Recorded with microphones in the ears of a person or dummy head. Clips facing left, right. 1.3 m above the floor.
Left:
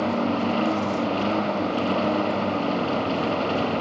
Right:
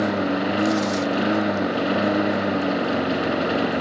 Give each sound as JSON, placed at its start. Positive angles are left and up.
{"t": 0.0, "sound": "a lawn mower", "side_deg": -15}